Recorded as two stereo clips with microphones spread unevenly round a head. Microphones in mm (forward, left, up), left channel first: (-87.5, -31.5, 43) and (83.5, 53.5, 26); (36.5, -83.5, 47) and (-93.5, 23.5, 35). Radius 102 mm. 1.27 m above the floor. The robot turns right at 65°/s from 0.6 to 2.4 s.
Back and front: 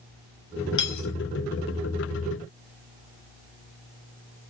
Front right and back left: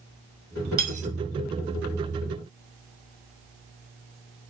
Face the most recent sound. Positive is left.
turn(degrees=-80)